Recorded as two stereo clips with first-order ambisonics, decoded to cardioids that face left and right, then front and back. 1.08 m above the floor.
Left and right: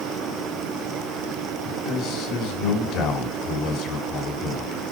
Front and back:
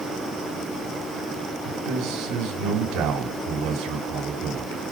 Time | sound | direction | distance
1.6 | a man speaking | 140° left | 6.5 m